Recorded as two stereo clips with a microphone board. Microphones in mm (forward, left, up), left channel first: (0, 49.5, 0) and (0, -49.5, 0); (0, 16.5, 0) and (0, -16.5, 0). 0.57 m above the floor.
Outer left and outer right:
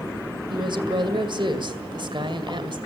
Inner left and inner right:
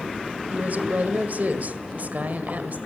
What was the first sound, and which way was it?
A woman speaking, 50° right (ahead or behind).